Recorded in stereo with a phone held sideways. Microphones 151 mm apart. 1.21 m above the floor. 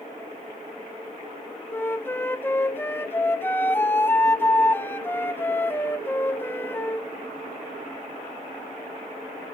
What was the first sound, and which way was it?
A flute, 15° left (ahead or behind).